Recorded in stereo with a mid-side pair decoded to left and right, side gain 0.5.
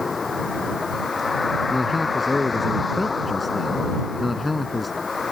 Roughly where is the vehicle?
Ahead left.